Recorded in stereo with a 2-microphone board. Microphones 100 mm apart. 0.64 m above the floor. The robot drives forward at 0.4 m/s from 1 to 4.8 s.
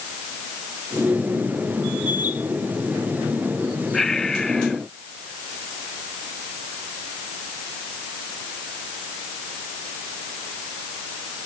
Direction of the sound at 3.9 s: 5° left (ahead or behind).